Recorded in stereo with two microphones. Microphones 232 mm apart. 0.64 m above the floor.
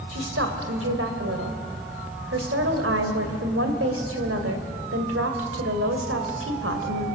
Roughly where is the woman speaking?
Right.